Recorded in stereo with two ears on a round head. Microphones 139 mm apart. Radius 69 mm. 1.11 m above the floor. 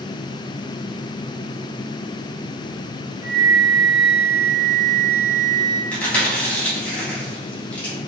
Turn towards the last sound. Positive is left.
turn(degrees=10)  # may be behind; listen again after turning